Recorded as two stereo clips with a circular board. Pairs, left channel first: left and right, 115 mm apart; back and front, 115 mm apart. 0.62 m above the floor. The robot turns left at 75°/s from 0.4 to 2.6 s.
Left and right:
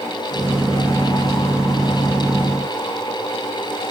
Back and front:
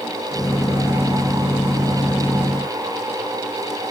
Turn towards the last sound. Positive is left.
No sound to turn to.